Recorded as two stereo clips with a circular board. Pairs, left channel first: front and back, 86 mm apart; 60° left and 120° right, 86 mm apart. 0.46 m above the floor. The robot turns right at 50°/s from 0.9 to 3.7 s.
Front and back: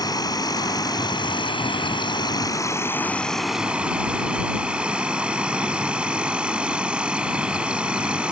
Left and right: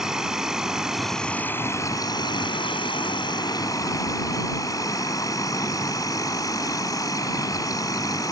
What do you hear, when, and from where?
0.0 s an insect: 35° right; by 8.3 s 105° left